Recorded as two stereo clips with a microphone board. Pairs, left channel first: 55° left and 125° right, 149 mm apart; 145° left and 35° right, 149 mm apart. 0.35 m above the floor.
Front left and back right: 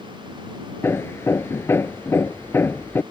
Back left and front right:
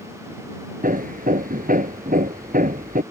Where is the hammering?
20° right.